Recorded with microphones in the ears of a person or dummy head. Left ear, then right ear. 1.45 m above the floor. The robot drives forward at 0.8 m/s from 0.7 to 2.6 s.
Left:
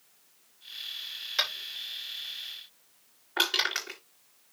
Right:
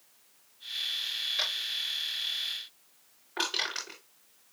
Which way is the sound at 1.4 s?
45° left (ahead or behind).